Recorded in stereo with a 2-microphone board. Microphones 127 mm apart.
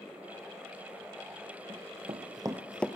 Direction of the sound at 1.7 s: 55° right (ahead or behind).